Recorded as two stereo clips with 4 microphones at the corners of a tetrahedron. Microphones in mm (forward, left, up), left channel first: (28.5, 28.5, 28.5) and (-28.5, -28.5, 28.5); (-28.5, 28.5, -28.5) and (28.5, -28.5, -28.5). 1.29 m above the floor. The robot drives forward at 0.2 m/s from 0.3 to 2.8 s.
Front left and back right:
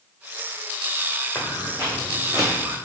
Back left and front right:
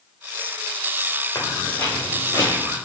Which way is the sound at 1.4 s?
110° left.